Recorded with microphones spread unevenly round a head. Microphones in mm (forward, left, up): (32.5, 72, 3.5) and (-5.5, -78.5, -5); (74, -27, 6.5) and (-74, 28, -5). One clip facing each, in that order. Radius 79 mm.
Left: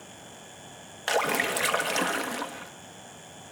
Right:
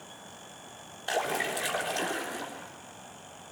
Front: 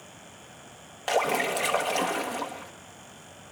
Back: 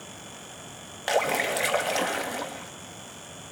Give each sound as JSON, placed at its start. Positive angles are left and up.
{"t": 1.1, "sound": "a splash", "azimuth_deg": 75, "distance_m": 1.6}